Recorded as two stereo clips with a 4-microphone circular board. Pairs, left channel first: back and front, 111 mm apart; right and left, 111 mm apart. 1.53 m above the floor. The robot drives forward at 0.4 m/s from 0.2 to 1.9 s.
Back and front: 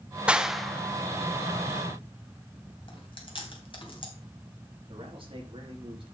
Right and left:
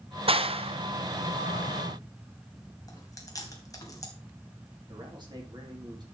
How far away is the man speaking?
About 3.5 m.